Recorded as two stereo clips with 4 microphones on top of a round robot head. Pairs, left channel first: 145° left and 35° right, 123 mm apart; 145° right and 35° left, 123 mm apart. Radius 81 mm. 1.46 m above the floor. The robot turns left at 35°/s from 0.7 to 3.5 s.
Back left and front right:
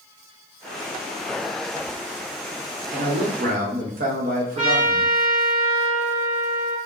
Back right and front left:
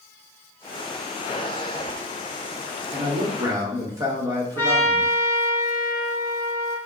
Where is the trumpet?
75° right, 1.2 m.